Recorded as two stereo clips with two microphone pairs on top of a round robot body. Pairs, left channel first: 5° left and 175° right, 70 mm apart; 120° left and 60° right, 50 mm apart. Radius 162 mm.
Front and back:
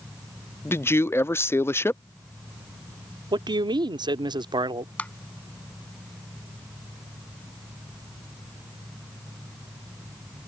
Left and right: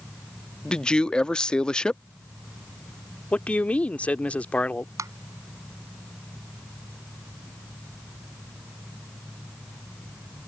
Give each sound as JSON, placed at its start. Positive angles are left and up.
{"t": 0.7, "sound": "a man speaking", "azimuth_deg": 45}
{"t": 3.3, "sound": "a man speaking", "azimuth_deg": -175}
{"t": 5.0, "sound": "tapping", "azimuth_deg": -65}